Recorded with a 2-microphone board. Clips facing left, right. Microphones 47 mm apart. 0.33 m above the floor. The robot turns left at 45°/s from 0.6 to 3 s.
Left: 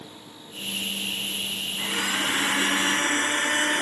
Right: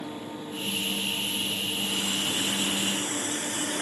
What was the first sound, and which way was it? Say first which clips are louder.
A blender: left 7 dB; 105° left.